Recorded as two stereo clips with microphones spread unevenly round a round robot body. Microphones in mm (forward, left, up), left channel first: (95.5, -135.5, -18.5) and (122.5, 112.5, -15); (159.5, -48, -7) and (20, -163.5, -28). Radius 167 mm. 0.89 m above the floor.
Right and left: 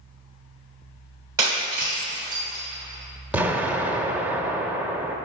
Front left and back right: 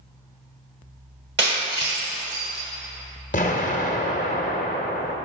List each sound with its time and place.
1.4 s breaking glass: 165° left, 1.2 m
3.3 s an explosion: straight ahead, 0.9 m